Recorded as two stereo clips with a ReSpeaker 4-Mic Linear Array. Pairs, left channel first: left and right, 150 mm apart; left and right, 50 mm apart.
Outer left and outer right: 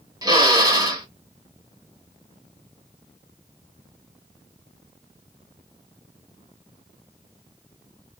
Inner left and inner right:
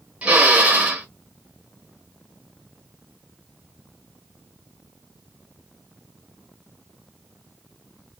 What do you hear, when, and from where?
0.2 s a drill: 25° right (ahead or behind), 1.2 m